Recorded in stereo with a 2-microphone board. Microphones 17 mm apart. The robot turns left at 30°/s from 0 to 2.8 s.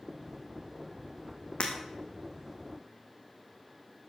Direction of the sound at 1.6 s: 70° left (ahead or behind).